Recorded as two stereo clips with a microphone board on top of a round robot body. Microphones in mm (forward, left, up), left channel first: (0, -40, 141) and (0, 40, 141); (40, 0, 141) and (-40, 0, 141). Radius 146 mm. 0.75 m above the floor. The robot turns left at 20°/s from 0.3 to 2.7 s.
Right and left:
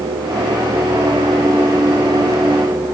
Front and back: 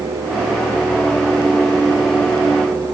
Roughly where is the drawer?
No drawer in this recording.